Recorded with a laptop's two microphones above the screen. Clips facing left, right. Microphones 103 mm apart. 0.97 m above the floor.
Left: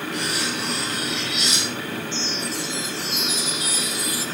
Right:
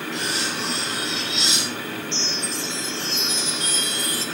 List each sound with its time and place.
0.1 s cutlery clinking: 30° right (ahead or behind), 9.5 m
2.1 s a chime: 10° left (ahead or behind), 2.5 m